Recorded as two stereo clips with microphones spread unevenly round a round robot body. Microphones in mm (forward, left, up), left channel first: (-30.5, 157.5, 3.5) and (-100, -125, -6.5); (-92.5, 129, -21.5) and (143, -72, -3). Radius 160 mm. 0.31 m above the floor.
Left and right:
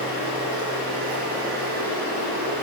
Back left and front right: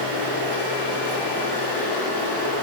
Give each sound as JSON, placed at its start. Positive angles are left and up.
{"t": 0.0, "sound": "running water", "azimuth_deg": -45, "distance_m": 1.4}